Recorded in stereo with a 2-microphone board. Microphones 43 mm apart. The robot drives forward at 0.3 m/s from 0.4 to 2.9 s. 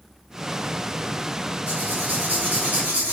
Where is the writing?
45° right (ahead or behind), 1.7 m; by 3.1 s 40° right (ahead or behind), 1.9 m.